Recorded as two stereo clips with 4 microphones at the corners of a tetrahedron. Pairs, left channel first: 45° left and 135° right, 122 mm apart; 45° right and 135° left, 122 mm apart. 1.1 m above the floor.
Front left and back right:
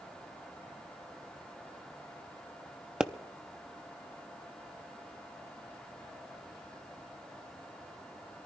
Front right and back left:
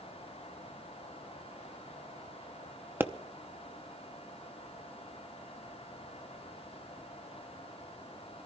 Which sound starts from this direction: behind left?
A pop, at 3.0 s.